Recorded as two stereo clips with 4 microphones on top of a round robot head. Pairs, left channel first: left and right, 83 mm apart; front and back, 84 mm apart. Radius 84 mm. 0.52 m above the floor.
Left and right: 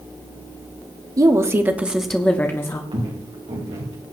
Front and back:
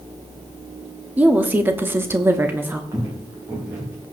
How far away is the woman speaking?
About 1.3 m.